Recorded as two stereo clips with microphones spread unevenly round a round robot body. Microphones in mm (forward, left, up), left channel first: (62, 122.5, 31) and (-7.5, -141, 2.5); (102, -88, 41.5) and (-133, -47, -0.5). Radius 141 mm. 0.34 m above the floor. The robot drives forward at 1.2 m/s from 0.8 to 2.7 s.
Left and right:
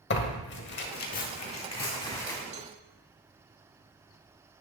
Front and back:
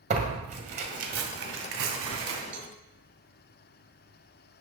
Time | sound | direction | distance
0.1 | tearing paper | 120° left | 1.8 m
2.5 | a cowbell | 165° right | 1.5 m